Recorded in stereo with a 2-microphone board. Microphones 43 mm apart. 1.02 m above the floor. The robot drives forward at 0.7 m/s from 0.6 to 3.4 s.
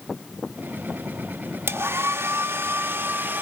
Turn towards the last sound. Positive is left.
turn(degrees=-55)  # may be behind; listen again after turning